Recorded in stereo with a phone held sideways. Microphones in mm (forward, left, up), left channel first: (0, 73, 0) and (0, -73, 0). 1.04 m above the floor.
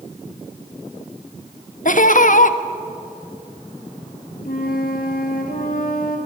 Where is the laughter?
65° left (ahead or behind), 1.1 m.